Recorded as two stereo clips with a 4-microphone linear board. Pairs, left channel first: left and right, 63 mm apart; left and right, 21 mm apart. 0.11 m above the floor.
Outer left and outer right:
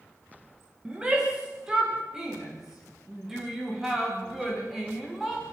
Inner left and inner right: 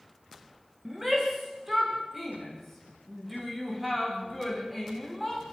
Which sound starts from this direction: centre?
A shout, at 0.8 s.